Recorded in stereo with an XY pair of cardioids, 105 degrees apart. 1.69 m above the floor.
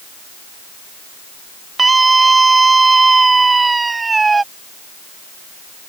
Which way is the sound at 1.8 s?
25° right.